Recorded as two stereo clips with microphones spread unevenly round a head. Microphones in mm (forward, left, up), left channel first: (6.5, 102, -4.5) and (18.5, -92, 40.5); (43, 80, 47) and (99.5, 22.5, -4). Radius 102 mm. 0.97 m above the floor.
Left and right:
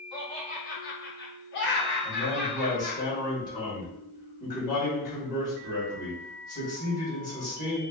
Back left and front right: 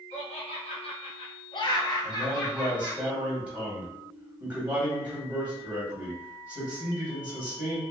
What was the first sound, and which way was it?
Laughter, 150° left.